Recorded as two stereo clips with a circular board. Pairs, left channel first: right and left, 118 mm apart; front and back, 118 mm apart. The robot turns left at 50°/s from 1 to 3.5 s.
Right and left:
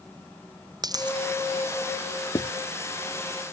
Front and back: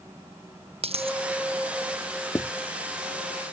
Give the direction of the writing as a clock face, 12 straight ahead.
2 o'clock.